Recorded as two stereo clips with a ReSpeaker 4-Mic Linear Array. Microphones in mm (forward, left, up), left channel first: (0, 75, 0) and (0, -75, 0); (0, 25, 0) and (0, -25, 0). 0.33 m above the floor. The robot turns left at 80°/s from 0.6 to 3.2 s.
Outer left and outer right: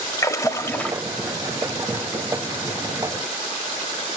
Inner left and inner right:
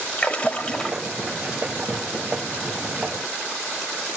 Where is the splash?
35° left, 1.1 m; by 1.0 s straight ahead, 1.1 m.